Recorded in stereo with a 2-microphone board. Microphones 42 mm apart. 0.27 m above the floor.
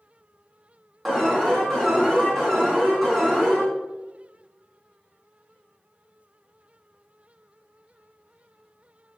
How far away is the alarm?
About 3 m.